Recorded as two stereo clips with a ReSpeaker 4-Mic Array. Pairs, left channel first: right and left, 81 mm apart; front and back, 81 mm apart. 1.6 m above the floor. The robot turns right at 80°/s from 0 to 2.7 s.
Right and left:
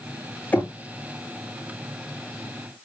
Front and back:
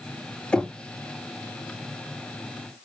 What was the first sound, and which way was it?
Knocking, 55° right.